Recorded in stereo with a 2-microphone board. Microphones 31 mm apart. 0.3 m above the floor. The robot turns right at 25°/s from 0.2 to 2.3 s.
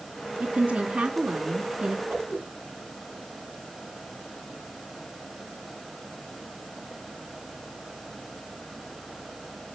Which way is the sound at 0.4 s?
85° right.